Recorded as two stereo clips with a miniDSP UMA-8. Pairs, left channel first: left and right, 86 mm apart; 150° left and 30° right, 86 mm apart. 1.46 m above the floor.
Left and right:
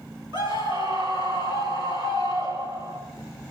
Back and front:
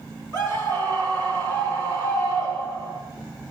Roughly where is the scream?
Right.